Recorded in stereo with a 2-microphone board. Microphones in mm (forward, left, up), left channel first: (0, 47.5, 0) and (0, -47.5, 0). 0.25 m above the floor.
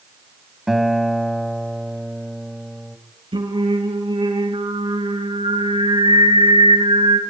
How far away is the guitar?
About 1.6 m.